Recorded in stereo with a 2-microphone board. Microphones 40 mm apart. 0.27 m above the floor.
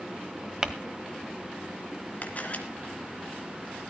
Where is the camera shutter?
45° left (ahead or behind), 2 m.